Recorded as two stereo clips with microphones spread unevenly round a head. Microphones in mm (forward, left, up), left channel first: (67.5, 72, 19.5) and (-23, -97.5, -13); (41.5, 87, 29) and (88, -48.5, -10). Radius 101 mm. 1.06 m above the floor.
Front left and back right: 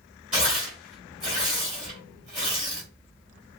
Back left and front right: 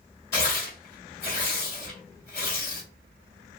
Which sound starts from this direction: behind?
Tearing paper, at 0.3 s.